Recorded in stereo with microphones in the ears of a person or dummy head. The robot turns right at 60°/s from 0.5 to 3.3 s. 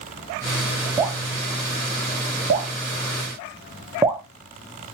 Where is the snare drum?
I don't hear a snare drum.